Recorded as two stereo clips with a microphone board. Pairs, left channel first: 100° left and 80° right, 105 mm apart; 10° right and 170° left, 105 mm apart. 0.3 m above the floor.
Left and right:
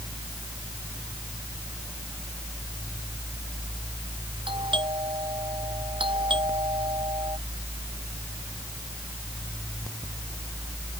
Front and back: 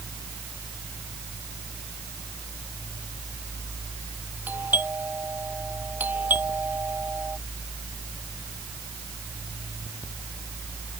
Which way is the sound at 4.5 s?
115° right.